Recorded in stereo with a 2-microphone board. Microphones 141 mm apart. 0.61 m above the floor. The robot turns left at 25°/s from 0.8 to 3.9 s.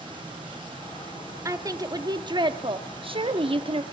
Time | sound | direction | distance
1.4 | a woman speaking | 35° right | 0.8 m